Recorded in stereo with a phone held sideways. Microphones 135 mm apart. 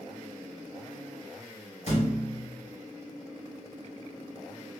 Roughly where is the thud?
Left.